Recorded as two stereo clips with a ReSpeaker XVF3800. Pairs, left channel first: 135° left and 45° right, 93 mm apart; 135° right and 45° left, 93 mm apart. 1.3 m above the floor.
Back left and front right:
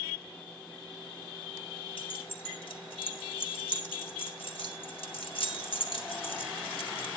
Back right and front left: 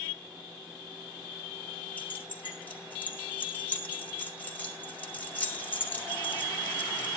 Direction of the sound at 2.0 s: 155° left.